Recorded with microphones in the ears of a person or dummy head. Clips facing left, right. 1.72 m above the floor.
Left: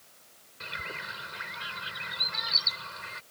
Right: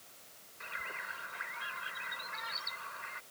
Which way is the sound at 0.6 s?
55° left (ahead or behind).